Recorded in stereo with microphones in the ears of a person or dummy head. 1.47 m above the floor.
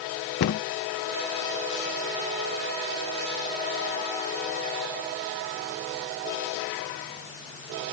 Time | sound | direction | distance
0.4 | a cupboard door | 60° left (ahead or behind) | ?